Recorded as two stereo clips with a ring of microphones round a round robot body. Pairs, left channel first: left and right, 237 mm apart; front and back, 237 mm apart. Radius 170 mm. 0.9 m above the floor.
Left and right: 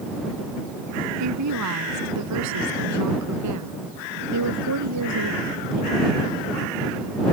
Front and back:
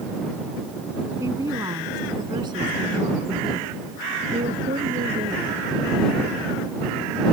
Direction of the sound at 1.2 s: 100° right.